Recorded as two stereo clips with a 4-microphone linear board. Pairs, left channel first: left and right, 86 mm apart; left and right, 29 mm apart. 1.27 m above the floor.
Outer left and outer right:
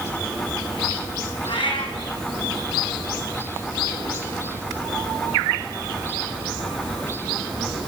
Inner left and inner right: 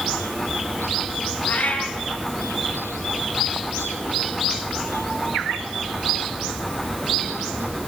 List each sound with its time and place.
1.5 s a cat meowing: 75° left (ahead or behind), 3.5 m